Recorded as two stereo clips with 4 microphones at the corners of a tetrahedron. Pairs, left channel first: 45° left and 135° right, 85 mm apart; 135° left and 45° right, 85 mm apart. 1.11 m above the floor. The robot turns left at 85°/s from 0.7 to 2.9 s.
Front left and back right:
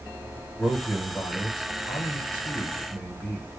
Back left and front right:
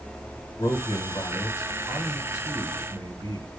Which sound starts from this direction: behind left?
A man speaking, at 0.6 s.